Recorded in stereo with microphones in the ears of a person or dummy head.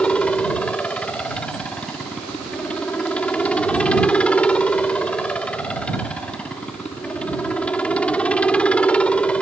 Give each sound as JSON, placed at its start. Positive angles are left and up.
{"t": 0.0, "sound": "a helicopter", "side_deg": 5}